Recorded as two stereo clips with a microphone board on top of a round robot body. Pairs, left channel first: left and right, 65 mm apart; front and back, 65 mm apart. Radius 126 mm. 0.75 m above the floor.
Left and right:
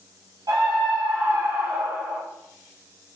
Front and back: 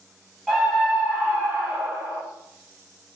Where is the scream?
95° right, 1.7 m; by 2.2 s 130° right, 1.7 m.